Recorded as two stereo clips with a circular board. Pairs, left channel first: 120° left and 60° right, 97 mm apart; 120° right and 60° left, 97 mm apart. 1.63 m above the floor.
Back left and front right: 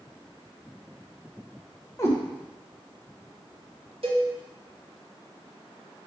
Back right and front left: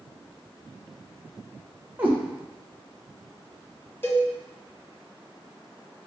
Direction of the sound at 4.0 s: 55° right.